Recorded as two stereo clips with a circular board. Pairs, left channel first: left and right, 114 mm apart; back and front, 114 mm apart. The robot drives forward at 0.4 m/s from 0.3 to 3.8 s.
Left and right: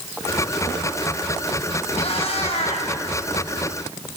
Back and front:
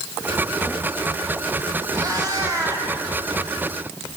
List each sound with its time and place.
1.9 s a cat meowing: 55° left, 4.5 m; by 2.9 s 60° left, 4.5 m